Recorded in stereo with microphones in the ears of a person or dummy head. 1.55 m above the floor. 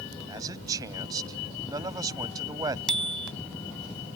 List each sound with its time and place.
0.3 s a man speaking: 25° right (ahead or behind)
2.9 s a bicycle bell: 5° left (ahead or behind)